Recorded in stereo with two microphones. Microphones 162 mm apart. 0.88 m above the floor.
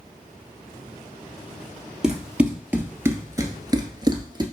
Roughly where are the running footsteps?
Centre.